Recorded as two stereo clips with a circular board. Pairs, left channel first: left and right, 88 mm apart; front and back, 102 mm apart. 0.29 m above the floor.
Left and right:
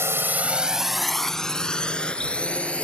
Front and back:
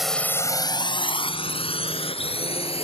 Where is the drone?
95° right; by 2.9 s 15° left.